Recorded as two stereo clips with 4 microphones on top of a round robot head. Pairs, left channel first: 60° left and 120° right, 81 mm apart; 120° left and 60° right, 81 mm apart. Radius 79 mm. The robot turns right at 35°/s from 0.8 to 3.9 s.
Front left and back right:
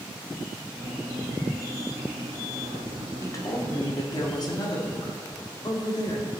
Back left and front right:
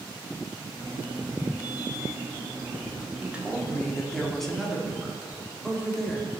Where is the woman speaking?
10° left, 2 m; by 6.3 s 35° left, 2 m.